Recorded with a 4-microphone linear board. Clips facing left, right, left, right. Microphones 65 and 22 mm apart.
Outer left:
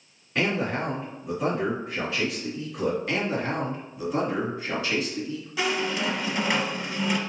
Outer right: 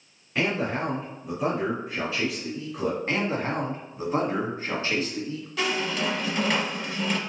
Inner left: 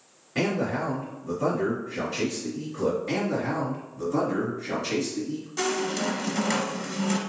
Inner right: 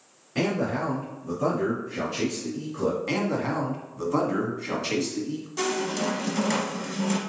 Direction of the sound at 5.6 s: 5° left (ahead or behind).